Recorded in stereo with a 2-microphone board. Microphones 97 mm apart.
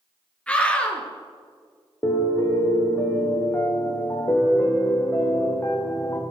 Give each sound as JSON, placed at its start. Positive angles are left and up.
{"t": 0.5, "sound": "a scream", "side_deg": 10, "distance_m": 2.0}
{"t": 2.0, "sound": "a piano", "side_deg": 30, "distance_m": 2.0}